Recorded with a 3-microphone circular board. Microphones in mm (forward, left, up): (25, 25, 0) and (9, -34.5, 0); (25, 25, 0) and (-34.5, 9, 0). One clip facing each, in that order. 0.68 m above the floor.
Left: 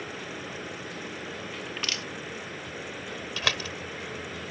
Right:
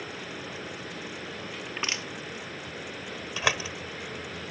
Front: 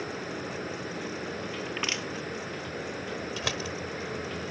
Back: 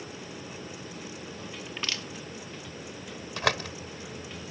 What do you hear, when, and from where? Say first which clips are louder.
0.0 s running water: left 1 dB, front 6 dB; 10° right
1.7 s crushing: right 2 dB, front 2 dB; 45° right
3.4 s a door slam: right 3 dB, back 9 dB; 175° right